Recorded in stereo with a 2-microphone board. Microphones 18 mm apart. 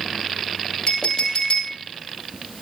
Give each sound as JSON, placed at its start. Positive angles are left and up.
{"t": 0.9, "sound": "a clink", "side_deg": 75, "distance_m": 4.0}